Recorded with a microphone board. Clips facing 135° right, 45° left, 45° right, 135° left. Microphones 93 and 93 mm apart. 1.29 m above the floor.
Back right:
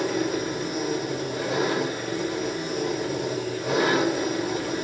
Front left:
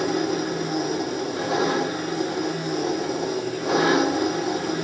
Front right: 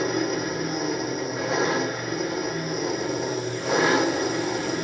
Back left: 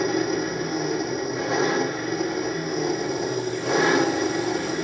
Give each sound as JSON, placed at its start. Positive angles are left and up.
{"t": 0.0, "sound": "an engine running", "azimuth_deg": 45, "distance_m": 1.4}